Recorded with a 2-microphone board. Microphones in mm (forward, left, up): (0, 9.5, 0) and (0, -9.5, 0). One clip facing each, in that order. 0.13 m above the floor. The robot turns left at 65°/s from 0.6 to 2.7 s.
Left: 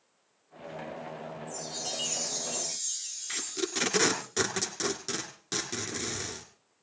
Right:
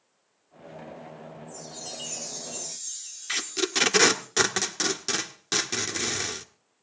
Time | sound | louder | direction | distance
1.5 | a chime | left 4 dB | 125° left | 6 m
3.3 | tape being pulled | right 7 dB | 30° right (ahead or behind) | 1.5 m